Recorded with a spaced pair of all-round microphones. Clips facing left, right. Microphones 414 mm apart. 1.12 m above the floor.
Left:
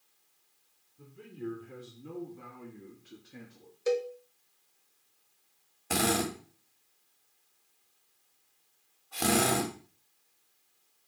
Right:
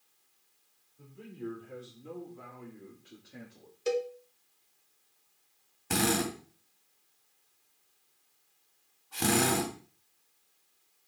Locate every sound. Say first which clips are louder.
1.0 s a man speaking: left 1 dB; 25° left (ahead or behind), 3.5 m; by 3.7 s 15° left (ahead or behind), 2 m
3.9 s a cowbell: left 1 dB; 45° right (ahead or behind), 1.0 m
5.9 s a drill: even; 15° right (ahead or behind), 2.5 m